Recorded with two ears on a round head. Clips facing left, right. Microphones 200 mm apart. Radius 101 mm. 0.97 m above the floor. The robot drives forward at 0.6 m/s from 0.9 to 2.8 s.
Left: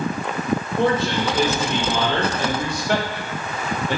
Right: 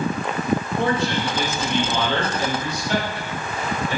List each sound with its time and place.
0.8 s a man speaking: 30° left (ahead or behind), 2.5 m; by 4.0 s 50° left (ahead or behind), 1.6 m